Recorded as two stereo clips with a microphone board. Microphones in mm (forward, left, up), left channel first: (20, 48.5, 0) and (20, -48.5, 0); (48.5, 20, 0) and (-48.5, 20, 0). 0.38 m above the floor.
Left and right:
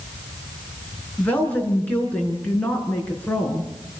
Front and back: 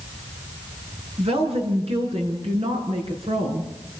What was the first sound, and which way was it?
A woman speaking, 165° left.